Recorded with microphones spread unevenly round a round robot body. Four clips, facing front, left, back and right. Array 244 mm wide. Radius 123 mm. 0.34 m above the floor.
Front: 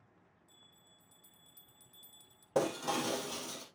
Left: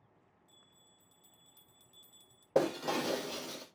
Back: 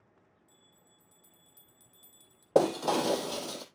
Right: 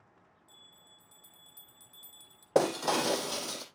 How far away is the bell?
About 1.7 m.